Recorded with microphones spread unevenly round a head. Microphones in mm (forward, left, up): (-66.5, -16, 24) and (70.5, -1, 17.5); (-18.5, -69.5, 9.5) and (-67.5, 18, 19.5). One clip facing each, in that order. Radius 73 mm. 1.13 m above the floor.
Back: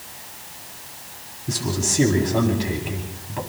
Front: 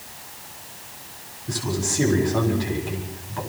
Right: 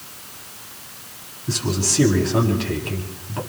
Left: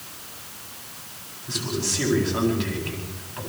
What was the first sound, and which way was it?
A man speaking, 105° right.